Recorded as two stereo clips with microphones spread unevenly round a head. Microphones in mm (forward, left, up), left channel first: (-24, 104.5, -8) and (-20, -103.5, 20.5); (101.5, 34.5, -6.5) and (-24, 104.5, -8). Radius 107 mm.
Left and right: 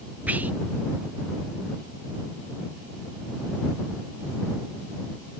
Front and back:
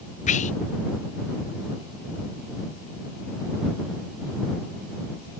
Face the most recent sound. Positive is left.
turn(degrees=-10)